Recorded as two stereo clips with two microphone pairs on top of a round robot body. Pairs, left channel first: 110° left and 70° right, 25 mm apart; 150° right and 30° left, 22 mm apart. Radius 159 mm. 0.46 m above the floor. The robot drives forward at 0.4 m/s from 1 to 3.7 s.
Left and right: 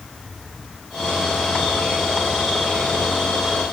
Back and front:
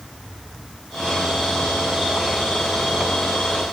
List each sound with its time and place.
Only background noise.